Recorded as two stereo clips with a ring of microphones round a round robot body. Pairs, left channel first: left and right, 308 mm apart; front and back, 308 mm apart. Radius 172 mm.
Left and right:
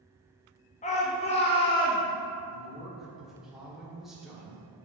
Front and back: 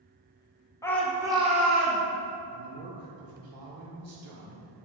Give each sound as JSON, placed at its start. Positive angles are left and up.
{"t": 0.8, "sound": "a shout", "azimuth_deg": 65, "distance_m": 0.9}
{"t": 2.5, "sound": "a woman speaking", "azimuth_deg": 180, "distance_m": 1.8}